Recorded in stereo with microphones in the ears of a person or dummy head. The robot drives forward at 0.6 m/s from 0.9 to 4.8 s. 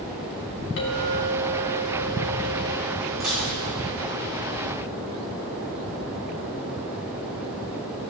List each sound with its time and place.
0.8 s a clink: 70° left (ahead or behind), 3 m
3.2 s dishes clattering: centre (ahead or behind), 4 m